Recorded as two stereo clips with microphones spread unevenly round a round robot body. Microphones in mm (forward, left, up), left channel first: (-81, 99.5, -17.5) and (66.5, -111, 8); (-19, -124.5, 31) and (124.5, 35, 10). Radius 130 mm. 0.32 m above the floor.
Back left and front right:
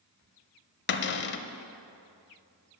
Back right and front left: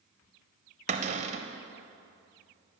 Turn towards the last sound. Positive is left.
turn(degrees=95)